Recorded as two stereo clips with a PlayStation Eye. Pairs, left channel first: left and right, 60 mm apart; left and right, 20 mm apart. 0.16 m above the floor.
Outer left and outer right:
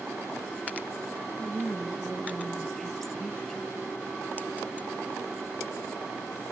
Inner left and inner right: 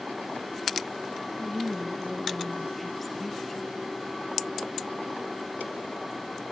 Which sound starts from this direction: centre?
A woman speaking, at 1.4 s.